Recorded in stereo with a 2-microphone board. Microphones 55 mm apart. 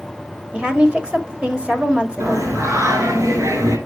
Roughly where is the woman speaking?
Right.